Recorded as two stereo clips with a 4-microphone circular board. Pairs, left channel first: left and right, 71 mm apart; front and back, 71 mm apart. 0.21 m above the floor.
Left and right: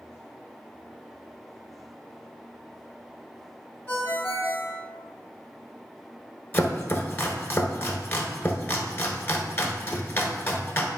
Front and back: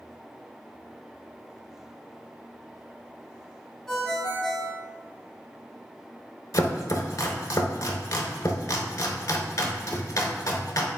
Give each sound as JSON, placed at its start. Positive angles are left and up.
{"t": 3.9, "sound": "a ringtone", "azimuth_deg": 80, "distance_m": 0.8}
{"t": 6.5, "sound": "chopping", "azimuth_deg": 35, "distance_m": 0.7}